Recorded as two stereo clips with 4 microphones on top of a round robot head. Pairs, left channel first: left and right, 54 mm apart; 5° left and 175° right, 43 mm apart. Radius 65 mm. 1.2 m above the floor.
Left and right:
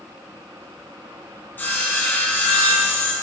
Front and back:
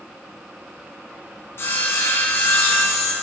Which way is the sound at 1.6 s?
35° left.